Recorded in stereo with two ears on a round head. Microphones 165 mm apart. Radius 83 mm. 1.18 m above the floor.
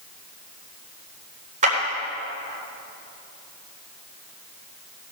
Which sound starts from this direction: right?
A clap, at 1.6 s.